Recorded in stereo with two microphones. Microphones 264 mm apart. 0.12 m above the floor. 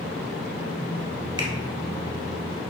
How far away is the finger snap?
About 1.2 m.